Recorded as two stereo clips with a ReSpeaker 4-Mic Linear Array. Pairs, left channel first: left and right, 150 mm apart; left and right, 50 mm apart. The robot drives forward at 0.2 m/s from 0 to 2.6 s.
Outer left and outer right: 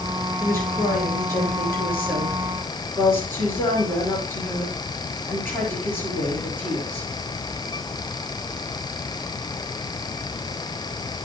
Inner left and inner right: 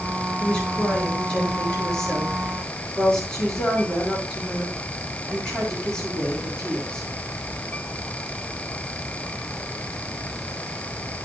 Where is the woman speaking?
15° left (ahead or behind), 6 m.